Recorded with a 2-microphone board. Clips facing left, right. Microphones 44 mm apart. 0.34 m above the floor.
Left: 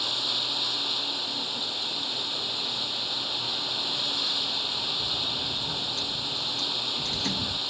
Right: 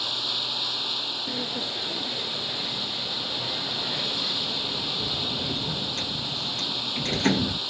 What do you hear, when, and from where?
0.0 s running water: centre (ahead or behind)
1.3 s a sliding door: 45° right (ahead or behind)